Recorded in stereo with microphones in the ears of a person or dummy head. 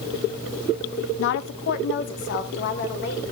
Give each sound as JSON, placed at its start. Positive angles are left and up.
{"t": 1.2, "sound": "a woman speaking", "side_deg": 55, "distance_m": 0.7}